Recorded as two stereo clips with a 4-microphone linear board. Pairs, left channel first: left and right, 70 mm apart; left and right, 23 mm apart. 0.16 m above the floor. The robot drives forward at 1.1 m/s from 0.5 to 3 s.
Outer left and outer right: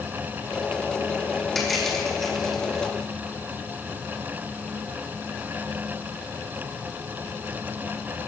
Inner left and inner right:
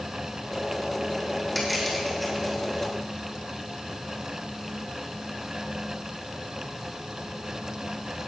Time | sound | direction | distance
1.6 | crushing | centre (ahead or behind) | 6.5 m